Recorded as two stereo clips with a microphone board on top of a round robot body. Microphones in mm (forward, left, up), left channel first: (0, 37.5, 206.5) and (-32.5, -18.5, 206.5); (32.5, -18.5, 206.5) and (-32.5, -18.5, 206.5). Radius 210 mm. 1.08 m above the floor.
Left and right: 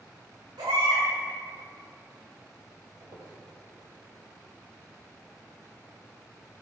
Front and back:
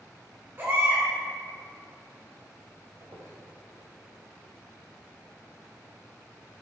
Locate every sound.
0.6 s a baby crying: 120° right, 5 m
3.0 s a squeak: 140° right, 3.5 m